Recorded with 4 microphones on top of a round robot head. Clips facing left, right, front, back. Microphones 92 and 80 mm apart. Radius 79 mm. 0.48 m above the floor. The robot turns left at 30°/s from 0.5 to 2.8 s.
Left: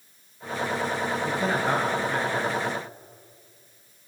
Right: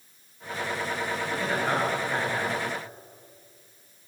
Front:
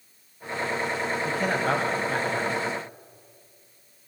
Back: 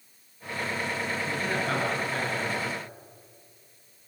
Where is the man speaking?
20° left, 3 m; by 2.6 s 25° right, 3 m.